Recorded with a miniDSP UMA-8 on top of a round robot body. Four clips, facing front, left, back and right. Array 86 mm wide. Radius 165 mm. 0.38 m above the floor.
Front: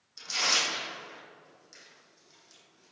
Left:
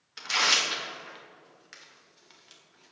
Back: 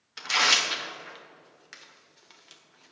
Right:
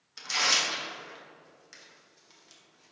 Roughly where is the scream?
No scream in this recording.